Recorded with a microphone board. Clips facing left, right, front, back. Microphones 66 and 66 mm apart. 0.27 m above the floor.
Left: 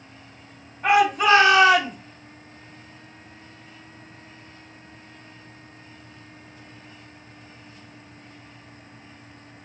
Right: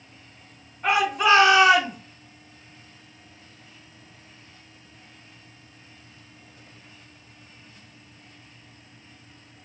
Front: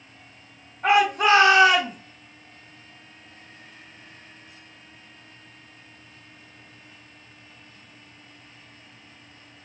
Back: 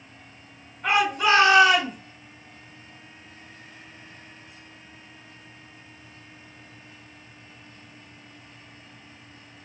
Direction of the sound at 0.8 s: 20° left.